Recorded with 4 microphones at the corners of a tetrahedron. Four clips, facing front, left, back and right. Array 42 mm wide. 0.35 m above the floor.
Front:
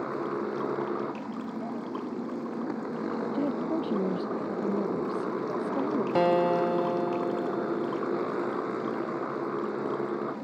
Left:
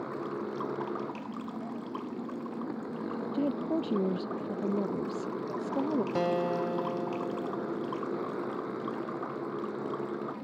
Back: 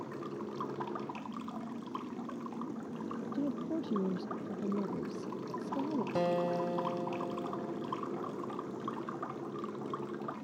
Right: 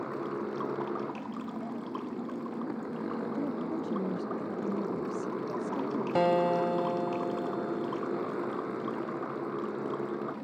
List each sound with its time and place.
0.0 s a motorcycle: straight ahead
3.3 s a woman speaking: 55° left
6.2 s a guitar: 25° right